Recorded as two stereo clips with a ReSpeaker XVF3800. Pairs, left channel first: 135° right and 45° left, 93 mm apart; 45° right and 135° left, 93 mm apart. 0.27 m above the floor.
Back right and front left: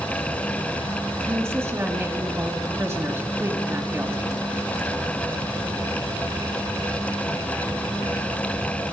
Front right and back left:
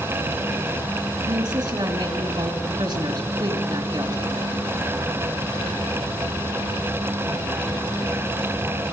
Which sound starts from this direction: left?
A woman speaking, at 1.2 s.